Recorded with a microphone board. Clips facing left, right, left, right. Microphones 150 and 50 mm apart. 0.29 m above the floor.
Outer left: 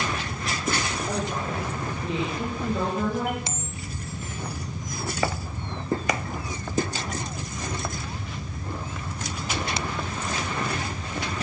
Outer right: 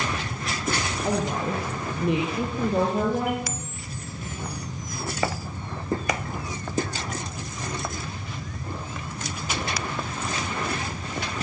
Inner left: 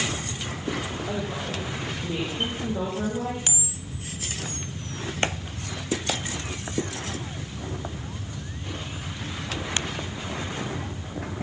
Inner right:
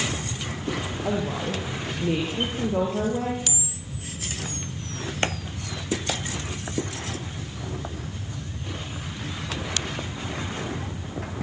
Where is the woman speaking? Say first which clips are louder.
Outer right 3 dB, inner right 3 dB; 65° right (ahead or behind), 9.5 m; by 3.4 s 60° right (ahead or behind), 8.5 m.